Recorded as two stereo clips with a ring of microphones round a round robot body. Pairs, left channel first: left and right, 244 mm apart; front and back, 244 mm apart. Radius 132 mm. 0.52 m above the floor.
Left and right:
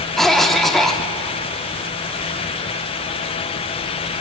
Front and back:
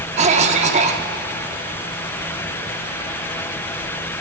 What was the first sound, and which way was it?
A cough, 175° left.